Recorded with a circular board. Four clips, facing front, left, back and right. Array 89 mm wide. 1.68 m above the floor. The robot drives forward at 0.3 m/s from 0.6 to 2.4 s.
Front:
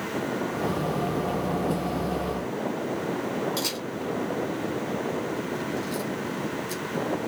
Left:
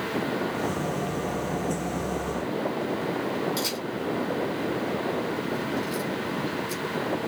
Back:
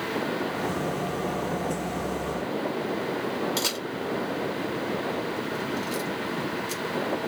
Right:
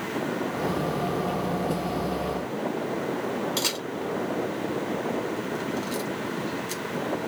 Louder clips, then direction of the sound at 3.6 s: Even, even; 140° right.